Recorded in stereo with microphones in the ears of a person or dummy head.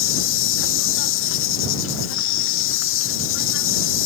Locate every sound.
0.0 s an insect: 60° left (ahead or behind)